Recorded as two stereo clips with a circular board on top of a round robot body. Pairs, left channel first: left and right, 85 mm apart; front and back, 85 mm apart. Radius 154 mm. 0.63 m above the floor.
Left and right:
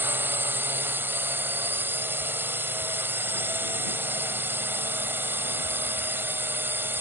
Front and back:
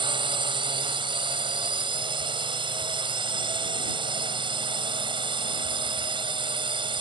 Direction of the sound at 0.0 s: 155° right.